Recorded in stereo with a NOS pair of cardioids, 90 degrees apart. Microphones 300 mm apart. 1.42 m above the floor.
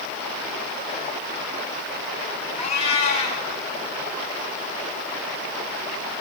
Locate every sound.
2.6 s a cat meowing: 70° left, 4 m